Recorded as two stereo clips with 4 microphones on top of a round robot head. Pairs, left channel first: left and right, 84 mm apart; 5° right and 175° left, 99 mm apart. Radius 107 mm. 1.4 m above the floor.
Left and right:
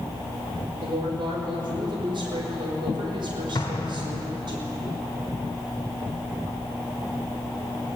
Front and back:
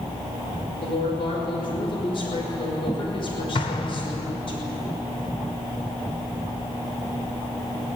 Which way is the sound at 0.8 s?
50° right.